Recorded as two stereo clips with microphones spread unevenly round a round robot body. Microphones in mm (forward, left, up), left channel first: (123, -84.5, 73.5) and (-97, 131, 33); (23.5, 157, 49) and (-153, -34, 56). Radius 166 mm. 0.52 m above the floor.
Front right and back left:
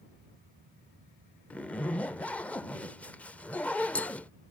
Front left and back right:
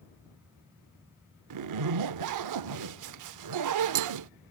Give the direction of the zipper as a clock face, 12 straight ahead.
4 o'clock.